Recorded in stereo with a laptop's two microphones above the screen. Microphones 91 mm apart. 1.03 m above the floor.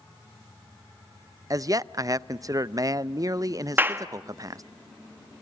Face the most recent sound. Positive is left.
turn(degrees=-20)  # may be behind; listen again after turning